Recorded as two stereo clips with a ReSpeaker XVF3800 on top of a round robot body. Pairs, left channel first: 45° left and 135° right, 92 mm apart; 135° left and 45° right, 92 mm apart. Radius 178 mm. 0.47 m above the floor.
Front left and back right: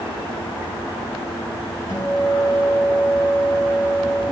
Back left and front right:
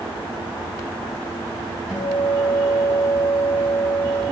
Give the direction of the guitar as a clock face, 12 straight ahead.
11 o'clock.